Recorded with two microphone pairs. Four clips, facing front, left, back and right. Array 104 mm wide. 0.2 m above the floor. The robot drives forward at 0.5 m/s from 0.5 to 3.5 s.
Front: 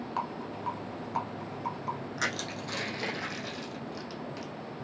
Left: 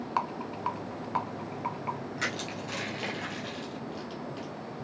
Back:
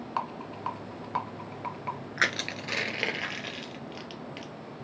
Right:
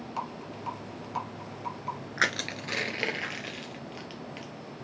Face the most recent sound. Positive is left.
turn(degrees=-160)